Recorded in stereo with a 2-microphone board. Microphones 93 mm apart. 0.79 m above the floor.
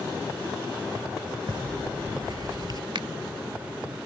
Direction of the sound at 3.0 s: 60° right (ahead or behind).